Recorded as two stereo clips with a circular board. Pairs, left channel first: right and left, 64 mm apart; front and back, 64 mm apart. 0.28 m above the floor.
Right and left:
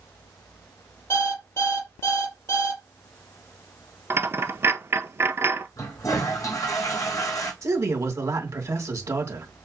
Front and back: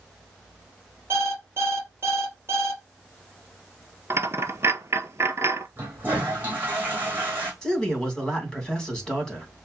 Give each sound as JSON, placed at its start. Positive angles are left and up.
{"t": 1.1, "sound": "an alarm clock", "azimuth_deg": -125, "distance_m": 4.0}
{"t": 4.1, "sound": "a dropped coin", "azimuth_deg": 135, "distance_m": 0.8}
{"t": 5.8, "sound": "a toilet flushing", "azimuth_deg": -115, "distance_m": 3.0}
{"t": 7.6, "sound": "a man speaking", "azimuth_deg": 80, "distance_m": 2.5}